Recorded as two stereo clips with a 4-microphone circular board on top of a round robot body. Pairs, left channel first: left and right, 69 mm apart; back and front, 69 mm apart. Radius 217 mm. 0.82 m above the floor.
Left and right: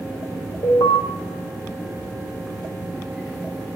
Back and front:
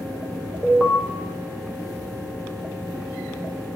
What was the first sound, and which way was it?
An alarm, 90° left.